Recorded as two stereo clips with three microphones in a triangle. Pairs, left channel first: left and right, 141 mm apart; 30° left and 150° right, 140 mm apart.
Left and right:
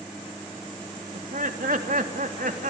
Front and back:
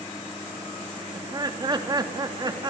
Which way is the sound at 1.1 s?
90° right.